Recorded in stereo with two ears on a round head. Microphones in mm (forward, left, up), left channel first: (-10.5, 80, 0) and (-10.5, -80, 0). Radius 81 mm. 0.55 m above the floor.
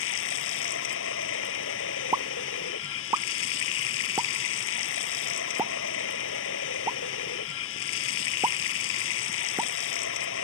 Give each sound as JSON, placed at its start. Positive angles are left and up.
{"t": 0.0, "sound": "running water", "side_deg": 85}
{"t": 2.1, "sound": "a pop", "side_deg": -15}